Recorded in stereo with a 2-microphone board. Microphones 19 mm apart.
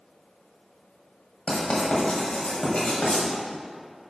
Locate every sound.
1.5 s writing: 70° left (ahead or behind), 1.7 m